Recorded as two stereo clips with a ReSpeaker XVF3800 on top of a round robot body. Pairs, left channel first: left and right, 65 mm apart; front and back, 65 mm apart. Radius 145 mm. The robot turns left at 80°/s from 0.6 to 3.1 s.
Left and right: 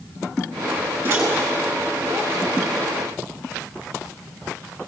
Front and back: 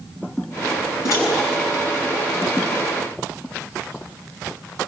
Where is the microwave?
35° right, 10 m; by 1.2 s 50° right, 10 m.